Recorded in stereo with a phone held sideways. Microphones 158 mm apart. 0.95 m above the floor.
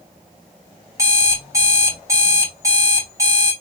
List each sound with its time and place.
1.0 s an alarm clock: 20° right (ahead or behind), 1.1 m